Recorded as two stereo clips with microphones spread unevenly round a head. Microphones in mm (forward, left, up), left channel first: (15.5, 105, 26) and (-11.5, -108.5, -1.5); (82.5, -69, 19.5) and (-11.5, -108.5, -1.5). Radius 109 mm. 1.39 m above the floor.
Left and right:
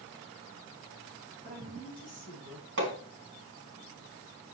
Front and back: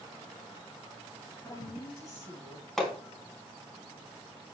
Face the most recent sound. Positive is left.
turn(degrees=-60)